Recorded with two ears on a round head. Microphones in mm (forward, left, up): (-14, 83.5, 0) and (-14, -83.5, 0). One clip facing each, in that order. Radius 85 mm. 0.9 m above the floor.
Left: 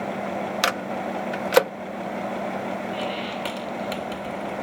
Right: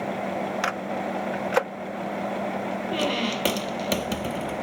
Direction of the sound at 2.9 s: 50° right (ahead or behind).